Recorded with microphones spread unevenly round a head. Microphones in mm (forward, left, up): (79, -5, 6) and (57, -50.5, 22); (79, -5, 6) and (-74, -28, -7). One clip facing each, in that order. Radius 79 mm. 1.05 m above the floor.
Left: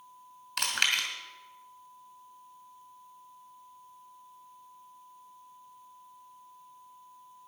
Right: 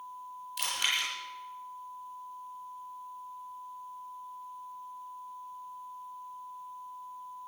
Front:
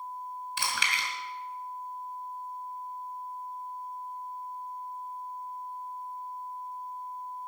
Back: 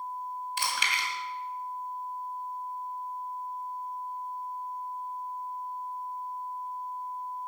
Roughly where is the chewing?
Ahead left.